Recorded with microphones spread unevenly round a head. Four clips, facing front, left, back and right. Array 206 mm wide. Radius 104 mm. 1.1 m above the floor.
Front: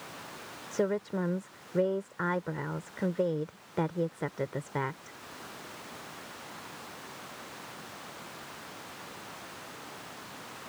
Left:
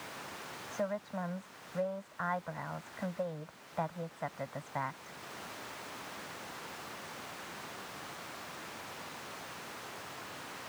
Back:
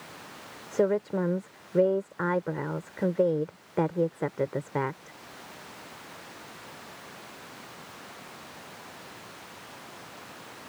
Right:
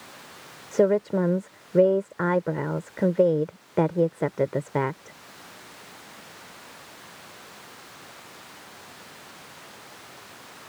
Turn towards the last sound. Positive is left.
turn(degrees=-105)